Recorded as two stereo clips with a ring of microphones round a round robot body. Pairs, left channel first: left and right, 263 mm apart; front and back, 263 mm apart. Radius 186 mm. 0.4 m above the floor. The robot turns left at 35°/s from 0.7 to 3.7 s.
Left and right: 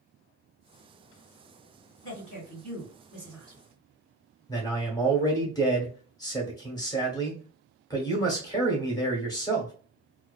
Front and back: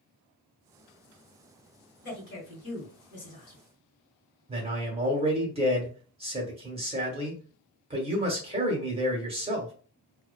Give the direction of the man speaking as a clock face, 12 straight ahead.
7 o'clock.